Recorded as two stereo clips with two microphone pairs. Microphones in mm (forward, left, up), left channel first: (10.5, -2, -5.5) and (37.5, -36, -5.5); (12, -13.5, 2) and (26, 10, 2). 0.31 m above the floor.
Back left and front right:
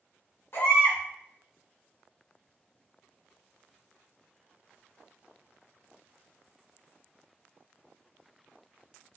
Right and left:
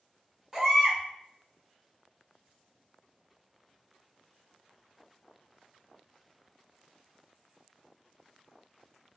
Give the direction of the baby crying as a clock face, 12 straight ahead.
8 o'clock.